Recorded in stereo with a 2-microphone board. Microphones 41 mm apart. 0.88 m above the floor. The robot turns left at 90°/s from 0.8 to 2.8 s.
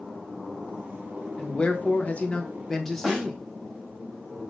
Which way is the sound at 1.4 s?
140° left.